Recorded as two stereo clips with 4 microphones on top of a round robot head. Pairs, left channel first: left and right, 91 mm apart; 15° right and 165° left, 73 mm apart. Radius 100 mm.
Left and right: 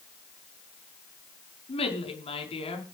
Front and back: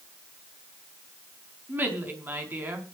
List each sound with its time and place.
1.7 s a woman speaking: 105° left, 5.5 m